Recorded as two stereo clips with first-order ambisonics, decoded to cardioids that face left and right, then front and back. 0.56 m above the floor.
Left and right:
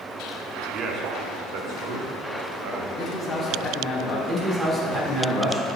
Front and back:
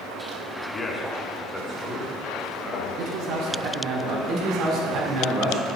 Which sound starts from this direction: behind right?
A man speaking, at 4.3 s.